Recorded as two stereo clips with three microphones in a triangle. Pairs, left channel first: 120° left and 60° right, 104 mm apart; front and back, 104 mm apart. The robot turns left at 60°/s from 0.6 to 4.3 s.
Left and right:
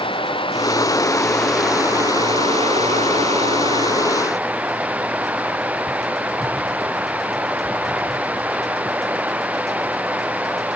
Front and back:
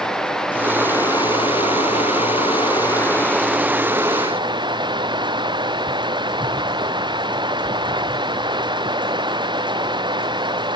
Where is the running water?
85° left; by 10.8 s 135° right.